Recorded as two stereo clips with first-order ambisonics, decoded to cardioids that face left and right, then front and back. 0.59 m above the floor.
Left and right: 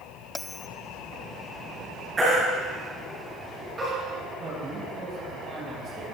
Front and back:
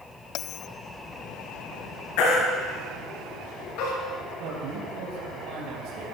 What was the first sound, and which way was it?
A bell, 10° left.